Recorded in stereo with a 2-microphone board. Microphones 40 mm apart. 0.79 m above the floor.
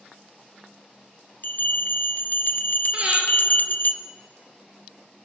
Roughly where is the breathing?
Right.